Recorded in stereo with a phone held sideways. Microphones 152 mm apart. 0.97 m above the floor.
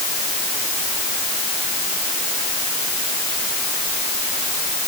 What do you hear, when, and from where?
Only background noise.